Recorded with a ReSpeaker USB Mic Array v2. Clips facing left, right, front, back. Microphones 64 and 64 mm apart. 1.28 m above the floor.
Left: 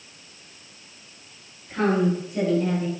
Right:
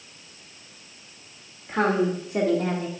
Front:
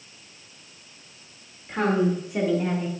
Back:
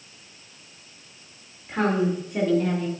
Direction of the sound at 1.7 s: 90° right.